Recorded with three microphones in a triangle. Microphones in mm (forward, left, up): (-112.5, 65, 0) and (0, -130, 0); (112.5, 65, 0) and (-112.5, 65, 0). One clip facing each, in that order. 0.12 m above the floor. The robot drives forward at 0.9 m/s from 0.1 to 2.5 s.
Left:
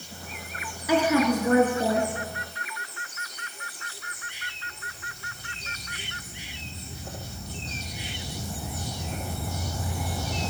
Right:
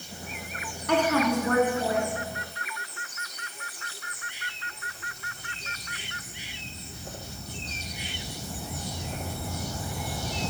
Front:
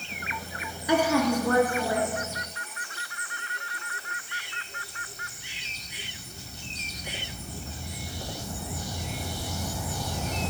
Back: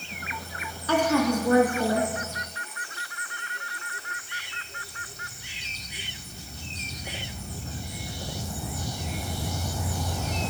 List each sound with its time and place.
0.9 s a woman speaking: 50° left, 1.1 m; by 2.1 s 160° left, 1.4 m